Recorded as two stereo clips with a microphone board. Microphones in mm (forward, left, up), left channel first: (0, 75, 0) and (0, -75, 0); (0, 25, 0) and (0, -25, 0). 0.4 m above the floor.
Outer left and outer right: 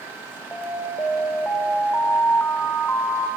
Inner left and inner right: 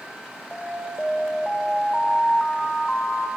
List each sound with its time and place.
0.5 s an alarm: 10° left (ahead or behind), 1.7 m